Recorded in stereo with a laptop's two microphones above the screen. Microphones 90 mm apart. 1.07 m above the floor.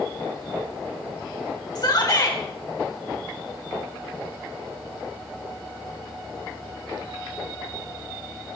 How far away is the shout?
About 4.5 m.